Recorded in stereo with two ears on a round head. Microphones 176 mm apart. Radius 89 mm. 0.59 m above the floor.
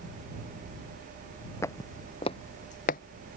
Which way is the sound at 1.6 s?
15° left (ahead or behind).